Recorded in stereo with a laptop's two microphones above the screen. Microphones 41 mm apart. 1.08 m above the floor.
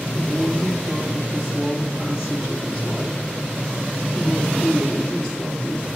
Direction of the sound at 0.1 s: 15° right (ahead or behind).